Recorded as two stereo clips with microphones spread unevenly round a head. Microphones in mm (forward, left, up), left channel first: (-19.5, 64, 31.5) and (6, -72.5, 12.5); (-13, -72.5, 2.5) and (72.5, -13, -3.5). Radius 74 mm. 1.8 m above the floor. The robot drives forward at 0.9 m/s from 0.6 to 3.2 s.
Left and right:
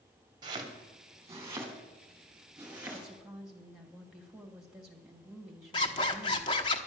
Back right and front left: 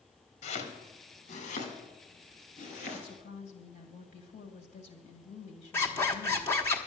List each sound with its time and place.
0.4 s chopping: 140° right, 2 m; by 3.1 s 160° right, 4 m
2.9 s a woman speaking: 165° right, 2.0 m
5.7 s a zipper: 145° left, 1.0 m